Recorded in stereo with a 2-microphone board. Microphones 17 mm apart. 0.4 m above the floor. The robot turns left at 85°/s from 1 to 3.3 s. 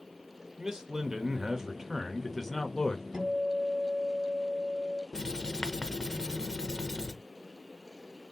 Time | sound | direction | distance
0.6 | a man speaking | 70° right | 1.0 m
3.1 | a guitar | 40° right (ahead or behind) | 2.5 m
5.1 | writing | 35° left (ahead or behind) | 0.7 m